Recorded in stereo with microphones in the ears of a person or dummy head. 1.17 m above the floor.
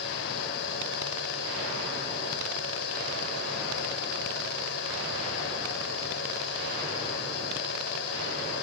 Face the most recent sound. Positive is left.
turn(degrees=70)  # may be behind; listen again after turning